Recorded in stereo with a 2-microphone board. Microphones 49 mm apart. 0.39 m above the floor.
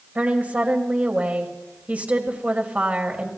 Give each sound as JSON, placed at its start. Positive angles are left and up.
{"t": 0.1, "sound": "a woman speaking", "side_deg": -30, "distance_m": 2.0}